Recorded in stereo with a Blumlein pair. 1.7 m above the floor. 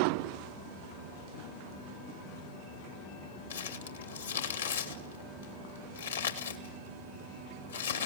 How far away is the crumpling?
About 2.5 m.